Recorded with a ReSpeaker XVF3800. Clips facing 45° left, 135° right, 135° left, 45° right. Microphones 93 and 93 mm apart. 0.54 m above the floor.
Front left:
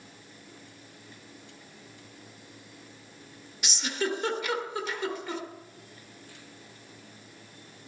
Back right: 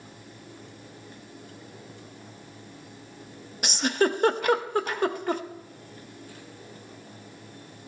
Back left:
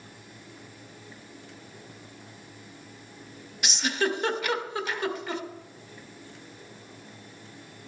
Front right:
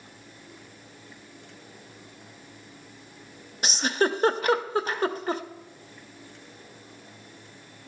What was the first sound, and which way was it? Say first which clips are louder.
A giggle: back right 7 dB, front right 3 dB; 95° right.